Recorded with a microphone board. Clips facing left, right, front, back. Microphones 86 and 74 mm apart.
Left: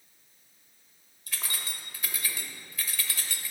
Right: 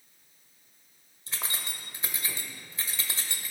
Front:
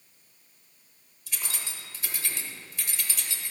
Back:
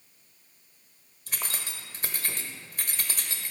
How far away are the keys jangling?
About 1.2 m.